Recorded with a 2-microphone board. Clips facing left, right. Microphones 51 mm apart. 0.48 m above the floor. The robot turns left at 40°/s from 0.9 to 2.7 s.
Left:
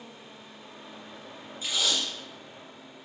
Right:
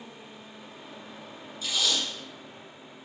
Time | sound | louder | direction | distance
1.6 | tape being pulled | even | 20° left (ahead or behind) | 1.6 m